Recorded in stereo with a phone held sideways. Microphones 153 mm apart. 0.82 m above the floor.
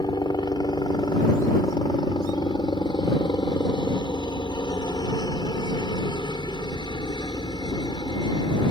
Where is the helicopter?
30° left (ahead or behind).